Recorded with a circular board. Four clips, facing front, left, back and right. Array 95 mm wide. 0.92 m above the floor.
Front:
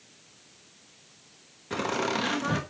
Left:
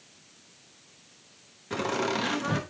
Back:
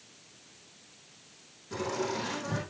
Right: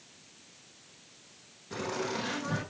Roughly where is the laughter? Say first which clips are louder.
Left 6 dB, front 4 dB; ahead left.